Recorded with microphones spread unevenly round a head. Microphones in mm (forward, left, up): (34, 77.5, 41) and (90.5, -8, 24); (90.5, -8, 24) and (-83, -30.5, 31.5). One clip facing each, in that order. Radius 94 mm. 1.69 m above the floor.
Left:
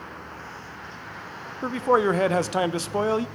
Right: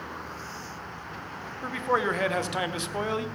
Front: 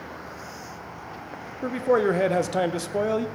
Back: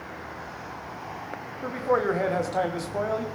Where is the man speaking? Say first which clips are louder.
Left 6 dB, front 3 dB; 70° left, 0.7 m.